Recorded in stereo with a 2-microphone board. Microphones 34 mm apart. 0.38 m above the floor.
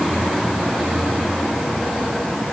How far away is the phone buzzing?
I don't hear a phone buzzing.